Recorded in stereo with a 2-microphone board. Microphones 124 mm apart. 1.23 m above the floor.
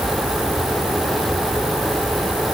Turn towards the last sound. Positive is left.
No sound to turn to.